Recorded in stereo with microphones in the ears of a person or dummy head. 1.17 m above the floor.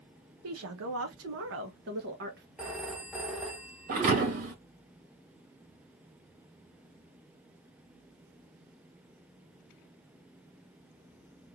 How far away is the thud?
About 1.9 m.